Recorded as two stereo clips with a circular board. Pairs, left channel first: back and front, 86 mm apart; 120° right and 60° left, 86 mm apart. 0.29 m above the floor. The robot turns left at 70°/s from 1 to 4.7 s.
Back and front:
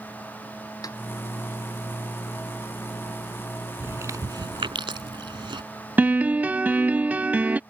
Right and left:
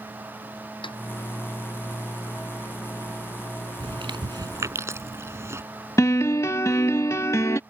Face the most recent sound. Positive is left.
turn(degrees=-70)